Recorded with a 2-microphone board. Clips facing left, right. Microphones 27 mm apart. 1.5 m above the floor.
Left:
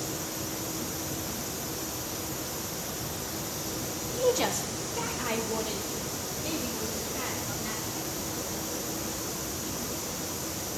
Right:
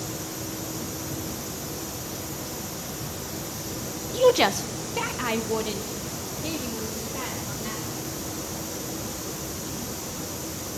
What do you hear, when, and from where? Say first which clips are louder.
4.1 s a woman speaking: right 8 dB; 45° right (ahead or behind), 0.6 m; by 8.0 s 25° right (ahead or behind), 3.5 m